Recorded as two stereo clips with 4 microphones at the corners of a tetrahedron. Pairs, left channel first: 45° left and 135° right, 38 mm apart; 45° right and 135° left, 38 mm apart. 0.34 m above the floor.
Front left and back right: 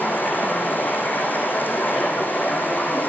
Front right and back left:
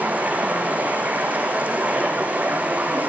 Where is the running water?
80° left, 5 m.